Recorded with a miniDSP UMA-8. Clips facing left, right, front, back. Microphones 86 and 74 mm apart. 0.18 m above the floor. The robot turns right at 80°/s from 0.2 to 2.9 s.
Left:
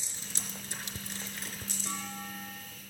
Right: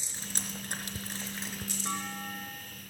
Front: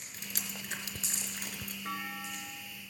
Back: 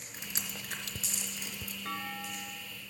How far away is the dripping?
About 1.6 m.